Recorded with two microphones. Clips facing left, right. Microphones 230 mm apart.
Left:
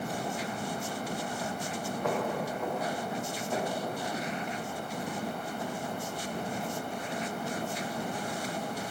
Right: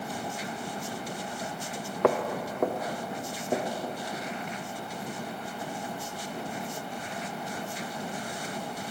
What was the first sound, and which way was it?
Footsteps, 75° right (ahead or behind).